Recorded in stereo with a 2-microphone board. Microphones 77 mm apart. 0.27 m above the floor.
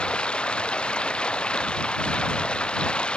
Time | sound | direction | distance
0.0 | running water | 10° left (ahead or behind) | ?